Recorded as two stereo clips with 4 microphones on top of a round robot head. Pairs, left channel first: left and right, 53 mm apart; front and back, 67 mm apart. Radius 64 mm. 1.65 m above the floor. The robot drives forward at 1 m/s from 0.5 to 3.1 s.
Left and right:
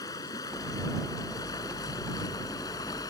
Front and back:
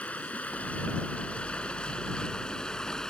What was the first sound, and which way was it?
Running water, 70° left.